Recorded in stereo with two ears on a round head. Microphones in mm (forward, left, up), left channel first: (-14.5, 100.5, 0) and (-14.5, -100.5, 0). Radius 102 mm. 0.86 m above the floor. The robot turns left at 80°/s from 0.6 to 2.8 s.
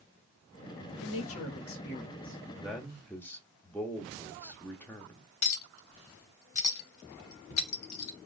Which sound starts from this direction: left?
A clink, at 5.4 s.